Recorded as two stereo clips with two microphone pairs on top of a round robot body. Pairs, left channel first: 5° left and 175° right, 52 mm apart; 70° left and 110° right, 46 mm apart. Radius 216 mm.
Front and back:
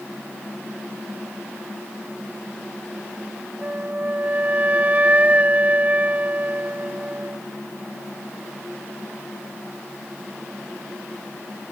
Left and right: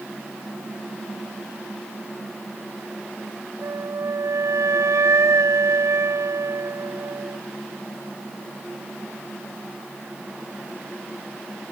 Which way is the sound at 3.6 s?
115° right.